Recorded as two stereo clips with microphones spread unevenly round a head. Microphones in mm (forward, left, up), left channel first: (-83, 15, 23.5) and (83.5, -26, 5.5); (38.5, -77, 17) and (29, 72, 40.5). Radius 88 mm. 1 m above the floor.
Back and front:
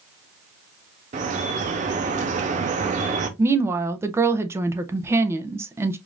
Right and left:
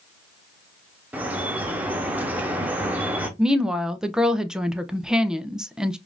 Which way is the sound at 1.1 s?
25° left.